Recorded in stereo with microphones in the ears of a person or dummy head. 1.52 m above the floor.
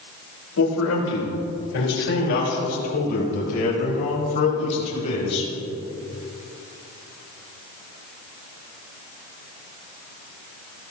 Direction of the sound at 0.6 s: 80° left.